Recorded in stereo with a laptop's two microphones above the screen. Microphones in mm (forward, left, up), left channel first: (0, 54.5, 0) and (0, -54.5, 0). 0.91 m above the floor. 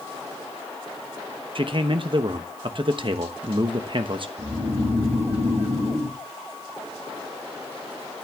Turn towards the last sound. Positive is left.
turn(degrees=-75)  # may be behind; listen again after turning